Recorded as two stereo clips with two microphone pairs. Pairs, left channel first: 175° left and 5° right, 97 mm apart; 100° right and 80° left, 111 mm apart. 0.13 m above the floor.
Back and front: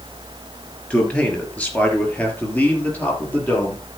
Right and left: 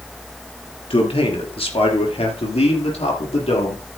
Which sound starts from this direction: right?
A man speaking, at 0.9 s.